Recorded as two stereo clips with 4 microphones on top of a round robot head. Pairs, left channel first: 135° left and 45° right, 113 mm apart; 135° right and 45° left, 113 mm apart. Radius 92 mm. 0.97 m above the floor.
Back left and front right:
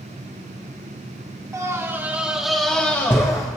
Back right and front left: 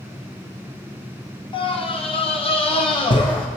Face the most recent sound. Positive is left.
turn(degrees=-170)